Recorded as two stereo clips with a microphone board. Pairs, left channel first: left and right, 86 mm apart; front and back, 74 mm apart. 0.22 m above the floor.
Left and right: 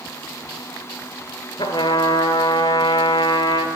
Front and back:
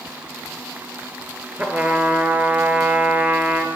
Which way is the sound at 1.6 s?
115° left.